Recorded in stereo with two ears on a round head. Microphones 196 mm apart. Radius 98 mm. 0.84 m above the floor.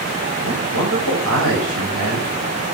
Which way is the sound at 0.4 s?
75° right (ahead or behind).